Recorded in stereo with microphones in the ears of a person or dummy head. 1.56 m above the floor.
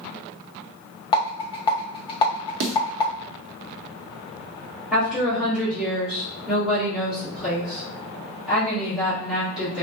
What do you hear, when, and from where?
1.1 s a rattle: 25° left (ahead or behind), 0.8 m
2.6 s a snare drum: 65° right (ahead or behind), 0.6 m
4.9 s a woman speaking: 5° right (ahead or behind), 1.9 m